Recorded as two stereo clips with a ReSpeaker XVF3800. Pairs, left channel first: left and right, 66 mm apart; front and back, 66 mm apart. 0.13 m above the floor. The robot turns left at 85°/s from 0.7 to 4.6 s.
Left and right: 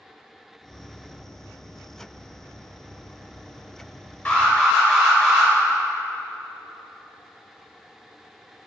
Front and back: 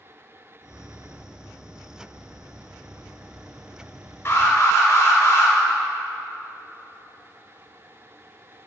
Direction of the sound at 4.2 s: 35° left.